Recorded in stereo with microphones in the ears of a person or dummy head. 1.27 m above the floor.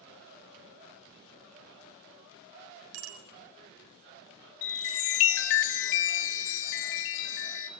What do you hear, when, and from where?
2.9 s a bicycle bell: 85° right, 4 m
4.6 s a chime: 70° left (ahead or behind), 1.7 m